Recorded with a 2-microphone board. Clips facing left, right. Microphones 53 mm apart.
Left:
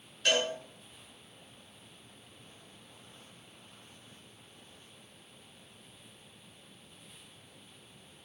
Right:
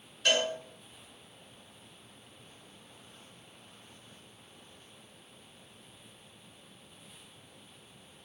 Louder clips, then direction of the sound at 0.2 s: Right 1 dB; centre (ahead or behind).